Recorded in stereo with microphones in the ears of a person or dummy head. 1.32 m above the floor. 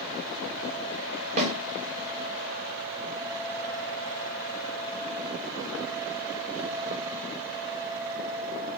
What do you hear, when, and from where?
1.4 s a snare drum: 35° right (ahead or behind), 1.0 m